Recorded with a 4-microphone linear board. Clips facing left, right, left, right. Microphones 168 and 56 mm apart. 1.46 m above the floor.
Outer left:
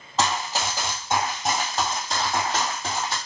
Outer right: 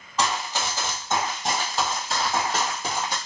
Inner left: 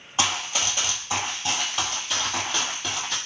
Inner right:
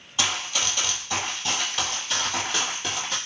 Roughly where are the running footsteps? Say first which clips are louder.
Outer left 1 dB, inner left 1 dB; left.